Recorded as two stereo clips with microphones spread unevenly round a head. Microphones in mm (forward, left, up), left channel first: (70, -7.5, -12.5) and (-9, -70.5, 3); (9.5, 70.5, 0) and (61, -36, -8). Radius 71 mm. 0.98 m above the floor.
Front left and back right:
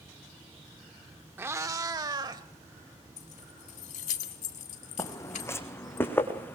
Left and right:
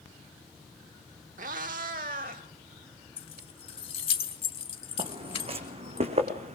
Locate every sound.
1.4 s a cat meowing: 80° right, 0.9 m; by 2.4 s 100° right, 2 m
3.2 s keys jangling: 70° left, 1.7 m
5.0 s footsteps: 25° right, 2.5 m; by 6.6 s 35° right, 4 m